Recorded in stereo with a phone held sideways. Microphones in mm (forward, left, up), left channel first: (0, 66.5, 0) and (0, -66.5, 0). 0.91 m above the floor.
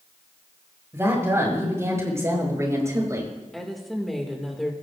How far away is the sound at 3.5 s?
About 2 m.